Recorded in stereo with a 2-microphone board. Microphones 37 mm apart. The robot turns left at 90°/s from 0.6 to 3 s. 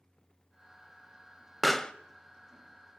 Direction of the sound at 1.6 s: Centre (ahead or behind).